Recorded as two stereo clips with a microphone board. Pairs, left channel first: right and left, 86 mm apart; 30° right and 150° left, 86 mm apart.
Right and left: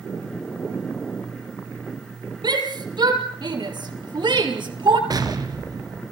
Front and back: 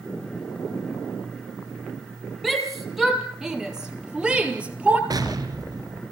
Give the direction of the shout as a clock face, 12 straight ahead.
10 o'clock.